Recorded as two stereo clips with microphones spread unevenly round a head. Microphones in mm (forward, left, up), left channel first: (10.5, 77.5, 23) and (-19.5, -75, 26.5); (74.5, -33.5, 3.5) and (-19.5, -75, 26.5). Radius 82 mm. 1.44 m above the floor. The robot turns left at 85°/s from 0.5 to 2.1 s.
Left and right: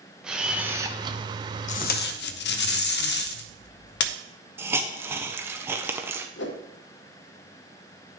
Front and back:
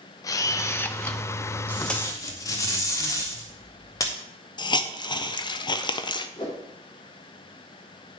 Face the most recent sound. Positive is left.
turn(degrees=90)